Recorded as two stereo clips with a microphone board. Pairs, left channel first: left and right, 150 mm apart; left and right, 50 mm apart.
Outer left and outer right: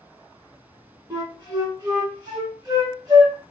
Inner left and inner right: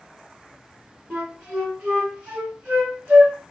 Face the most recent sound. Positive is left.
turn(degrees=-25)  # may be behind; listen again after turning